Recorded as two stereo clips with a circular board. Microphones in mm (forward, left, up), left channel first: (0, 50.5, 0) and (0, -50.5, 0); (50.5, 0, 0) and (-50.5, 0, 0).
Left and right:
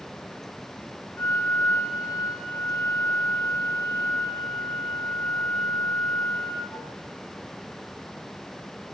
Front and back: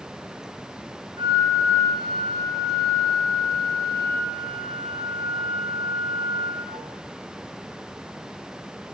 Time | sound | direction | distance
1.2 | a flute | 150° left | 1.2 m